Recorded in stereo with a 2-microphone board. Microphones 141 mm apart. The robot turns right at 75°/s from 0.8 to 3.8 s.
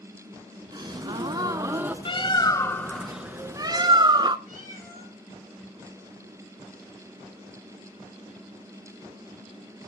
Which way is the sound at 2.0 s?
105° left.